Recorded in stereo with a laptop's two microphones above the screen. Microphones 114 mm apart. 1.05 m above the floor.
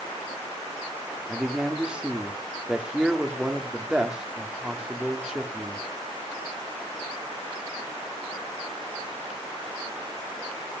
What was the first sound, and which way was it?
A man speaking, 10° right (ahead or behind).